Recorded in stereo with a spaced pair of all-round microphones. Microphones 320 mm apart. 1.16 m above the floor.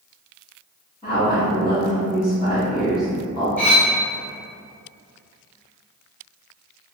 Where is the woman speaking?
15° left (ahead or behind), 1.7 m.